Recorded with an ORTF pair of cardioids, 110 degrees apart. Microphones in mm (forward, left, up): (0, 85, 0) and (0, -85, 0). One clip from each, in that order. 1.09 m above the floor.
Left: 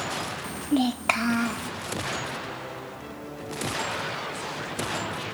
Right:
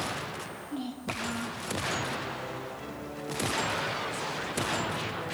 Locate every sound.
0.4 s a child speaking: 65° left, 0.5 m